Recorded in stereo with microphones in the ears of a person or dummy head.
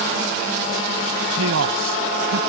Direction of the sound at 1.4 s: 80° right.